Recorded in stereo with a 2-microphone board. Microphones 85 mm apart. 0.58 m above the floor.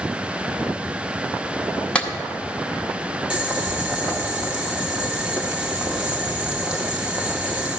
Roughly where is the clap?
Centre.